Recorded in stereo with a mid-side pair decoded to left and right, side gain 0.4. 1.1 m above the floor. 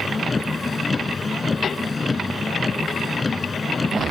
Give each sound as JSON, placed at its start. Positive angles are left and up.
{"t": 0.0, "sound": "a vehicle", "azimuth_deg": 30}